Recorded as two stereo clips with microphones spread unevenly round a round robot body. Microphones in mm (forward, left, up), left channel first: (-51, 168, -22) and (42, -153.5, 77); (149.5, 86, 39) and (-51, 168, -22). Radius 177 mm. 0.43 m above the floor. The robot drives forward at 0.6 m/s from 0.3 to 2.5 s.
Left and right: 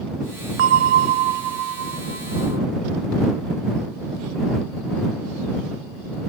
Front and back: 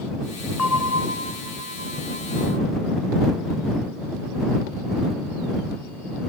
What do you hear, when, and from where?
0.6 s a bell: 70° right; by 2.6 s 150° right